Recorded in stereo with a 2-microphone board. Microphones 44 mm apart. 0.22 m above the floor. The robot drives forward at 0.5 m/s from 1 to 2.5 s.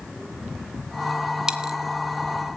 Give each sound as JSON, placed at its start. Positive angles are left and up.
{"t": 1.5, "sound": "a dropped coin", "side_deg": -15, "distance_m": 0.6}